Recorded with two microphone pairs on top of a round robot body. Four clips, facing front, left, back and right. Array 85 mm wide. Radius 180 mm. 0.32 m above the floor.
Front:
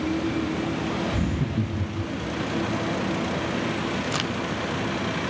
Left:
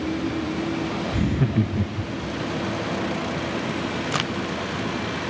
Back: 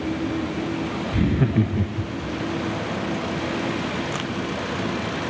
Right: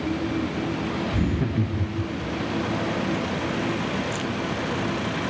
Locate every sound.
1.1 s laughter: 165° right, 0.9 m; by 2.3 s 150° left, 1.5 m
4.1 s a crack: 80° left, 1.3 m